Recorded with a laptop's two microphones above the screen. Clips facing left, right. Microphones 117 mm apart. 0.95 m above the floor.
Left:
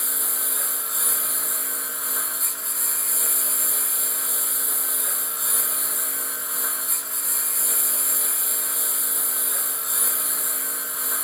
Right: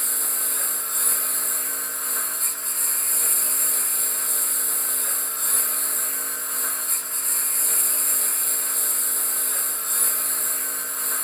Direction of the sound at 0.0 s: 5° left (ahead or behind).